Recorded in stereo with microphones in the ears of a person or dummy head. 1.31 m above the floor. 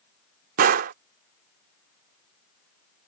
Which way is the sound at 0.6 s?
55° right (ahead or behind).